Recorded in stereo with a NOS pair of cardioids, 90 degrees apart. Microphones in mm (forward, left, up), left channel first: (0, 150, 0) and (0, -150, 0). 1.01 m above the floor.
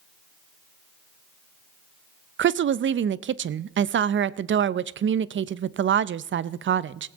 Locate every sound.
2.4 s a woman speaking: 40° right, 0.6 m